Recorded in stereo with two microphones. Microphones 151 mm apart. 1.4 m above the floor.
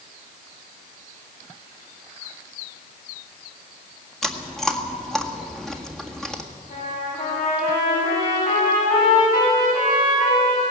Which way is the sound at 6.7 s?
65° left (ahead or behind).